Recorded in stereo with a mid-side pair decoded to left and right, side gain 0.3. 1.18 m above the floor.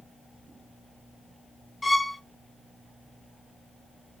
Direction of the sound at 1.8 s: 30° left.